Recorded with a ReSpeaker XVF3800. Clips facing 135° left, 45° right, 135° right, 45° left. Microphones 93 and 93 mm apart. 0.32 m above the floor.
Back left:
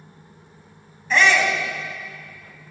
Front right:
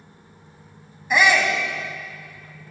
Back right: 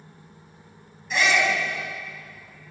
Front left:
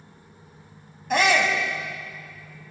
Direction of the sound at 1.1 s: 30° left.